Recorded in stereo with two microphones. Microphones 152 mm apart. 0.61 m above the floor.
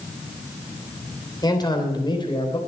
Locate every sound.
1.4 s a man speaking: 30° left (ahead or behind), 3 m; by 2.6 s 35° left (ahead or behind), 3.5 m